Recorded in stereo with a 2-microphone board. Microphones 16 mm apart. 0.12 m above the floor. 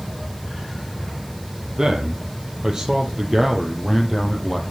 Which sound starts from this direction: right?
A man speaking, at 1.8 s.